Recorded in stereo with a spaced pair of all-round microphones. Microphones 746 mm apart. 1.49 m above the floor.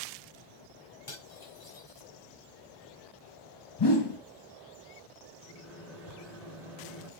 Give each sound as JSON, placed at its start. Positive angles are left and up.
{"t": 1.1, "sound": "cutlery clinking", "side_deg": 40, "distance_m": 5.0}
{"t": 3.8, "sound": "a whoosh", "side_deg": 35, "distance_m": 0.9}
{"t": 5.4, "sound": "a microwave", "side_deg": 25, "distance_m": 3.0}